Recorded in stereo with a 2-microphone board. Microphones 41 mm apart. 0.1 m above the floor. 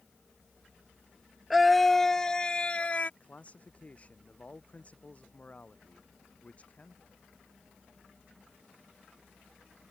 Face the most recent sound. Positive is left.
turn(degrees=35)  # may be behind; listen again after turning